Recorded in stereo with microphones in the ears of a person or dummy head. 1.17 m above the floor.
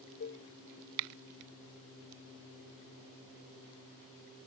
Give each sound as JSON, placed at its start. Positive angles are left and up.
{"t": 0.2, "sound": "dishes clattering", "side_deg": 35}